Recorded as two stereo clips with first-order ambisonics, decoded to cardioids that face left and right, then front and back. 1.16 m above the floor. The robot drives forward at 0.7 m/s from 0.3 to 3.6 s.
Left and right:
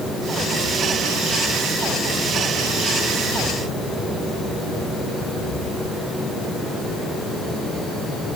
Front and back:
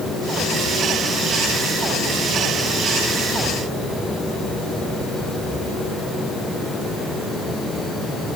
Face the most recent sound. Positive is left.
No sound to turn to.